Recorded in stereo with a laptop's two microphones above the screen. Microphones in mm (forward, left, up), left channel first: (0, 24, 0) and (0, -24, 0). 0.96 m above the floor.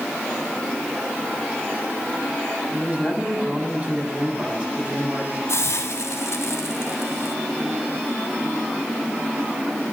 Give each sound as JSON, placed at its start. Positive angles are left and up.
{"t": 2.7, "sound": "a man speaking", "side_deg": -30, "distance_m": 8.0}
{"t": 5.5, "sound": "a hiss", "side_deg": 80, "distance_m": 3.0}